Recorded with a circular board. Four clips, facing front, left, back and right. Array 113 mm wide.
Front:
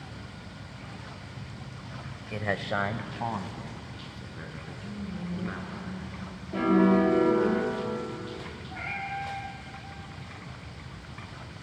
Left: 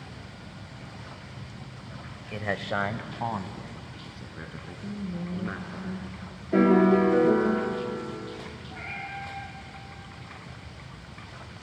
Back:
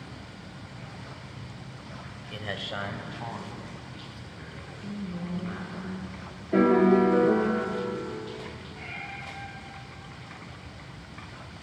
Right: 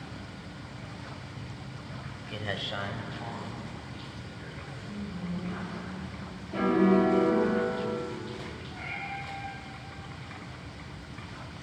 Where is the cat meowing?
25° left, 8.5 m.